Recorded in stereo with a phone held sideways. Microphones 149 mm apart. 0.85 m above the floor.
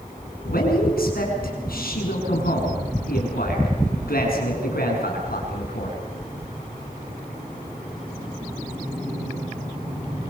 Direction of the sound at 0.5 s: 80° left.